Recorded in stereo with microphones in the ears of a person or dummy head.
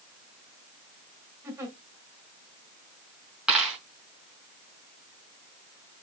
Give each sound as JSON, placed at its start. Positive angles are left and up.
{"t": 1.4, "sound": "a giggle", "side_deg": -15, "distance_m": 2.0}
{"t": 3.5, "sound": "a dropped coin", "side_deg": -5, "distance_m": 3.5}